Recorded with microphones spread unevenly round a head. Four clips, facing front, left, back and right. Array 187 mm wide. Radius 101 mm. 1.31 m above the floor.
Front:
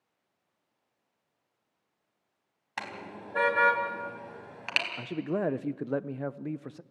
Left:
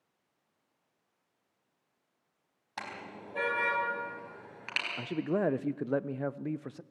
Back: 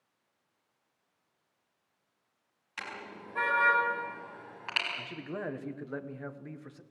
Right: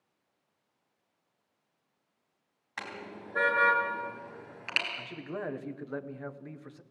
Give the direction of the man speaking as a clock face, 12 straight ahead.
10 o'clock.